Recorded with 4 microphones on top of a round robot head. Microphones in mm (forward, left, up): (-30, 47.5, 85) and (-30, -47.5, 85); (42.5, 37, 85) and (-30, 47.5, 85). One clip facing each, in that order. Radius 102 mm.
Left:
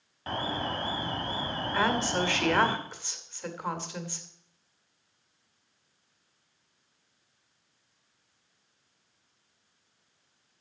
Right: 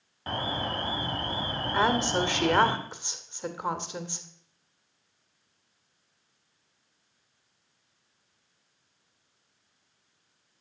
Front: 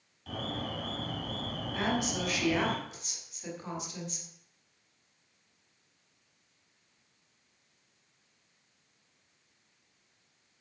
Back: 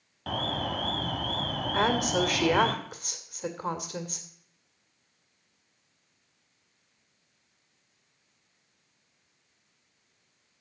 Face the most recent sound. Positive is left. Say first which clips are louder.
# right 2 dB, back 6 dB
turn(degrees=-160)